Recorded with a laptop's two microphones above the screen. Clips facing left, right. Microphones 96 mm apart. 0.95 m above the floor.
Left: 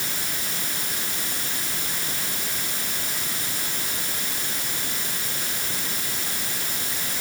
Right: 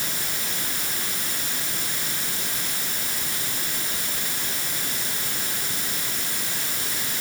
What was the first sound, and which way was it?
Only background noise.